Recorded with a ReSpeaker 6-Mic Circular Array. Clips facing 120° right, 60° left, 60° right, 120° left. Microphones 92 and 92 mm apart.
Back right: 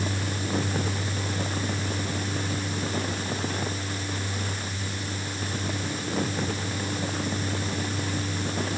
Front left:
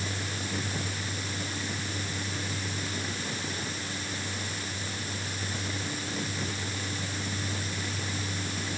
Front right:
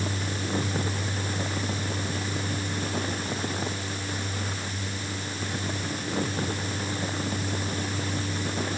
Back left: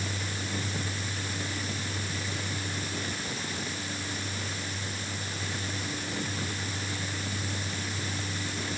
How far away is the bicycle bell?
I don't hear a bicycle bell.